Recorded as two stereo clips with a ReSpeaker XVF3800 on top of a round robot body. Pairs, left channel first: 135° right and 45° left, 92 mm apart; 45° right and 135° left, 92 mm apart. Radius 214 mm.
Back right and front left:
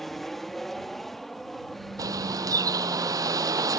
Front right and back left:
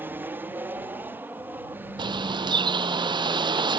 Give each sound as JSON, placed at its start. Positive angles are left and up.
{"t": 0.0, "sound": "an aircraft", "azimuth_deg": 140}
{"t": 2.0, "sound": "a bird", "azimuth_deg": 95}